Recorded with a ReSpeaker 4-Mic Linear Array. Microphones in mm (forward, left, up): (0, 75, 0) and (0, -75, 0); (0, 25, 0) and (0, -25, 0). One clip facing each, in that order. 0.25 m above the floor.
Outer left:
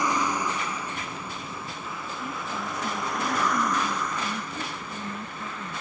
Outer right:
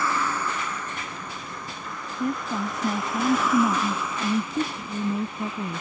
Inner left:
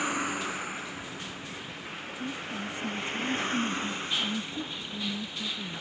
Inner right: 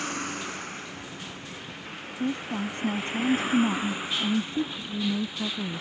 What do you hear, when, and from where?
0.0 s a vehicle: 15° left (ahead or behind); by 5.8 s 15° right (ahead or behind)
2.2 s a woman speaking: 50° right (ahead or behind)